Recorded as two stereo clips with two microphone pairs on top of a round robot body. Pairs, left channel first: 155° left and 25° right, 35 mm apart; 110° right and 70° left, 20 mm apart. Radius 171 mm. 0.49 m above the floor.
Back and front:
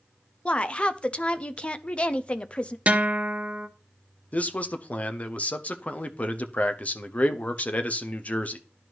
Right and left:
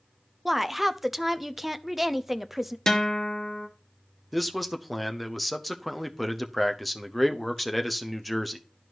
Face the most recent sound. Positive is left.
turn(degrees=160)